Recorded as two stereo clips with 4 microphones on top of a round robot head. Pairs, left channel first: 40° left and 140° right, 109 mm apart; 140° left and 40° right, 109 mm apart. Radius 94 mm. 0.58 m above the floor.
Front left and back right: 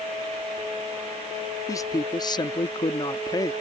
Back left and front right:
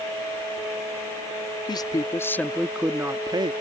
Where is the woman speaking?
95° left; by 3.5 s 10° right.